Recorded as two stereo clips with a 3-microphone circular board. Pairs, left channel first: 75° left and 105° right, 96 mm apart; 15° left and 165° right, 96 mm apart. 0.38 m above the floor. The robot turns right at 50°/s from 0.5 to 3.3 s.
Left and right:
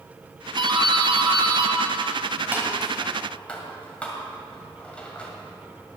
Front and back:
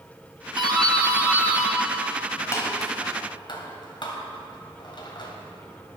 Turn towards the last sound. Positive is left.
turn(degrees=0)